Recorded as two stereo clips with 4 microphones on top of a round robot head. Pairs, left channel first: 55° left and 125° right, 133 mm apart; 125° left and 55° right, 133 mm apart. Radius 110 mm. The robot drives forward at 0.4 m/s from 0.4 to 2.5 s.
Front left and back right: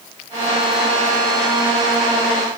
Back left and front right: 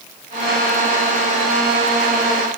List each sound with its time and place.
Only background noise.